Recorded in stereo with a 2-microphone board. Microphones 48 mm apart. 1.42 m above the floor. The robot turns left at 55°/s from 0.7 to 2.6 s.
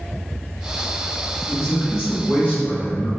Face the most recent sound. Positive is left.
turn(degrees=25)